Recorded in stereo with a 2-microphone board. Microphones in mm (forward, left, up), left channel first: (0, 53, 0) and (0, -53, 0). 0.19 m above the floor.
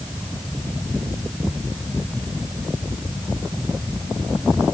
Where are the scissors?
No scissors in this recording.